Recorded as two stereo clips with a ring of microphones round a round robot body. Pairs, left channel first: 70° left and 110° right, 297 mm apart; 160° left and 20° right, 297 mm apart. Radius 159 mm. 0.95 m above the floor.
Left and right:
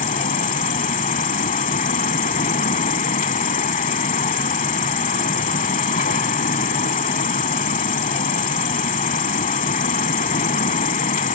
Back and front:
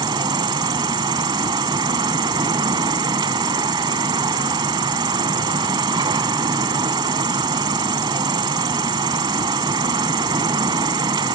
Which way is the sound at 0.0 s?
35° left.